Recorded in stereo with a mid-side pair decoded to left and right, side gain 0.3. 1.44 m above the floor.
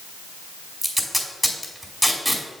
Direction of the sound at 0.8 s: Straight ahead.